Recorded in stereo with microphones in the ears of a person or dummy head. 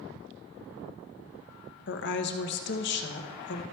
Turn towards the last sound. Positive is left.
turn(degrees=55)  # may be behind; listen again after turning